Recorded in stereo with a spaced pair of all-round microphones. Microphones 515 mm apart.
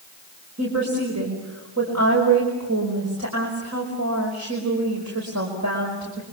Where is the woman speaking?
30° right (ahead or behind), 5 m.